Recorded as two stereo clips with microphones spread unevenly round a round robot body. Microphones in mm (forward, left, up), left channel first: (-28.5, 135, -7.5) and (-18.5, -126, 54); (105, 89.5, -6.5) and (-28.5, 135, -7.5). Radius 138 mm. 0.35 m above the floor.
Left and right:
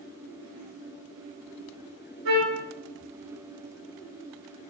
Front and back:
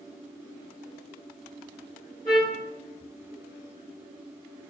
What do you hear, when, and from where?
2.2 s a trumpet: 125° right, 4.5 m